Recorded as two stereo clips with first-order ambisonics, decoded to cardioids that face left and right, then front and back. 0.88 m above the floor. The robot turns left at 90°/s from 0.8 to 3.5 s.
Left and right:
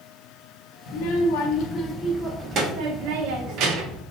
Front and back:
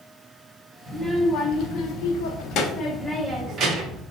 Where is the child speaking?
115° left, 0.9 m; by 4.0 s 125° right, 0.9 m.